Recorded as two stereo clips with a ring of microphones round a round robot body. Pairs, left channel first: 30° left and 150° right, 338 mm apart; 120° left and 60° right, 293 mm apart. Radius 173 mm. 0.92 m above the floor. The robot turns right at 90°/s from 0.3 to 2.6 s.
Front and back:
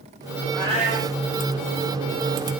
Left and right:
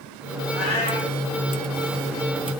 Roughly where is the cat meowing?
Behind left.